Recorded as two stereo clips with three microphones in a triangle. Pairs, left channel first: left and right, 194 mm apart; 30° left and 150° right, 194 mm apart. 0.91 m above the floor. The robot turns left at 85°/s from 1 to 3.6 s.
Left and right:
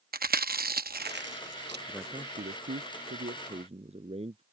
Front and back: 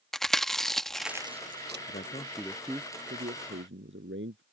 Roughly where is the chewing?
Ahead right.